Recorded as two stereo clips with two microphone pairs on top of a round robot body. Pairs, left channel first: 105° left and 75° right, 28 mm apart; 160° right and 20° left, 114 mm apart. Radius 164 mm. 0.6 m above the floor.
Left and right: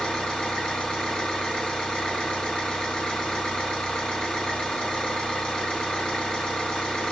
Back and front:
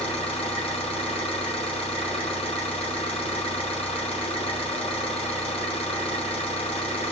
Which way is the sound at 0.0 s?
165° left.